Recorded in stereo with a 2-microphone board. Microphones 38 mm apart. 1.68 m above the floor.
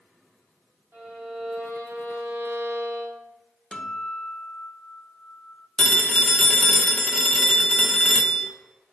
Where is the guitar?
15° left (ahead or behind), 1.3 m.